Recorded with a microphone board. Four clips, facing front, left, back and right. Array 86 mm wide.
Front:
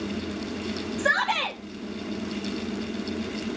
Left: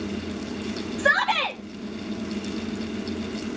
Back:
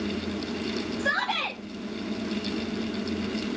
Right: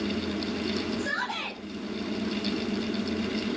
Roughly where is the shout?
Ahead left.